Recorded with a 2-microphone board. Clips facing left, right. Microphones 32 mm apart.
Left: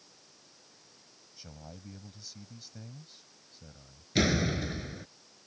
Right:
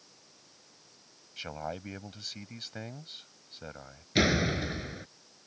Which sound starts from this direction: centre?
A door slam, at 4.2 s.